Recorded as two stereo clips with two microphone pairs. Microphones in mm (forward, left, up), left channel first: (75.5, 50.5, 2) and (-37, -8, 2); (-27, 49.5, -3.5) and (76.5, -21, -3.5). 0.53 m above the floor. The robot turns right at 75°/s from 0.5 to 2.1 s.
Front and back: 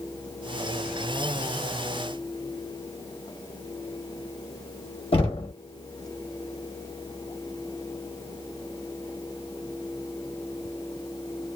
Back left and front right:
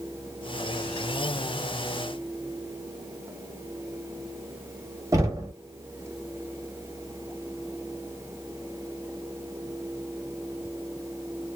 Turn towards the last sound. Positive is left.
turn(degrees=15)